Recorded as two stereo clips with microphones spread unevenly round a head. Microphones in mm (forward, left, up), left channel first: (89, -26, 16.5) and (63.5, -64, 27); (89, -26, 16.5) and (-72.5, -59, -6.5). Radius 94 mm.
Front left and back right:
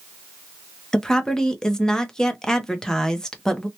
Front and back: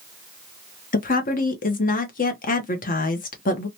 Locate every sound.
0.9 s a woman speaking: straight ahead, 0.8 m